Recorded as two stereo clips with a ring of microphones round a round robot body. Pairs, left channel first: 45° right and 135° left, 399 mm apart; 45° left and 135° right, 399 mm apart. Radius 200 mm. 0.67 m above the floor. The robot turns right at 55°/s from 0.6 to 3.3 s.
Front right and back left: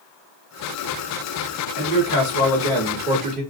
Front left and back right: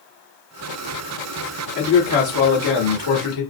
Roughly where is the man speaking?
Ahead.